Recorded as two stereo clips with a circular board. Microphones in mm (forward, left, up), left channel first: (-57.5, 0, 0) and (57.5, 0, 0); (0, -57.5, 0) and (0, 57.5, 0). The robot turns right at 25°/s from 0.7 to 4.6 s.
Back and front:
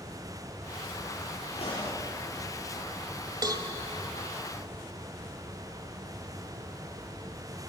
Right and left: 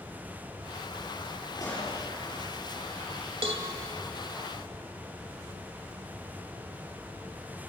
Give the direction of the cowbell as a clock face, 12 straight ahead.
10 o'clock.